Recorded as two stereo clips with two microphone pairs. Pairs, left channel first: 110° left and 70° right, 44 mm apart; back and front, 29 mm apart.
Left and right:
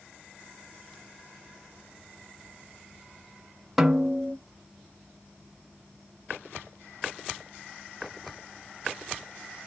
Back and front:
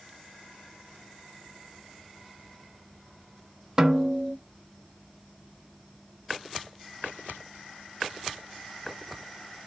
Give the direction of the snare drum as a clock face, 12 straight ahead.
12 o'clock.